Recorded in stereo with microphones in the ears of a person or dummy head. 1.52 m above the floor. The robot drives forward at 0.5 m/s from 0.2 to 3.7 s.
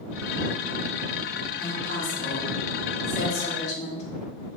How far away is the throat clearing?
No throat clearing in this recording.